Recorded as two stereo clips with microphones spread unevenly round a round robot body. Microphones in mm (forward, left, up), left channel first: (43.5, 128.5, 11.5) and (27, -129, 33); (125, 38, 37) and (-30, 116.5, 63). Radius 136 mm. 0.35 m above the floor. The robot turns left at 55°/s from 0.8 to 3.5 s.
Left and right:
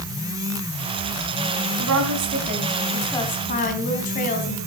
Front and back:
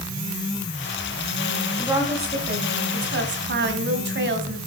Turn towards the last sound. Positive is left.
turn(degrees=145)